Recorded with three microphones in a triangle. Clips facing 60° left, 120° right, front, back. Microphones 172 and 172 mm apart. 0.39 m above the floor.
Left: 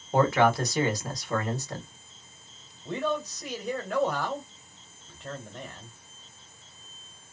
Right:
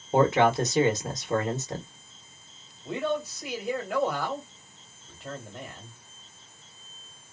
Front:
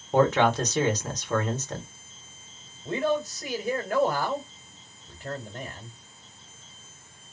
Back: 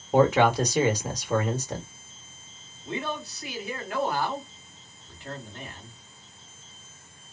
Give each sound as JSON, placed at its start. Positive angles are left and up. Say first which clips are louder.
{"t": 0.1, "sound": "a man speaking", "louder": "right 1 dB, back 1 dB", "azimuth_deg": -120, "distance_m": 1.1}
{"t": 2.9, "sound": "a man speaking", "louder": "right 1 dB, front 7 dB", "azimuth_deg": -35, "distance_m": 1.5}